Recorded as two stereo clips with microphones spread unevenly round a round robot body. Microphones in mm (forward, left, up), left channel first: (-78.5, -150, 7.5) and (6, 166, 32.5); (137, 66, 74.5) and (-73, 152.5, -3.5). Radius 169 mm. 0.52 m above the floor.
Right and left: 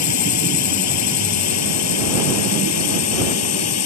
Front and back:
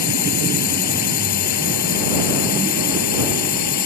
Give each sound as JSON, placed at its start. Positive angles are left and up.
{"t": 0.0, "sound": "a drone", "azimuth_deg": -60}